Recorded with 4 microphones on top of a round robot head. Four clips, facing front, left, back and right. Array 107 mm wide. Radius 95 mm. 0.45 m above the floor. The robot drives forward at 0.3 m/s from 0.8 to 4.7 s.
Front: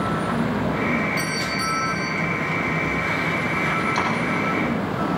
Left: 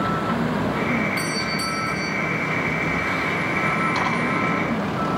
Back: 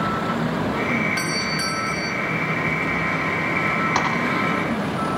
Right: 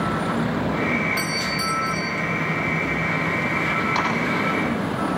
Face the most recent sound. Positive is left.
turn(degrees=-175)